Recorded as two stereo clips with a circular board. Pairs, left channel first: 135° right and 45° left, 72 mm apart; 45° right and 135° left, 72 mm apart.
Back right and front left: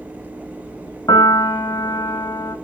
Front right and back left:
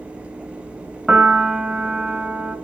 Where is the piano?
140° right, 2.5 m.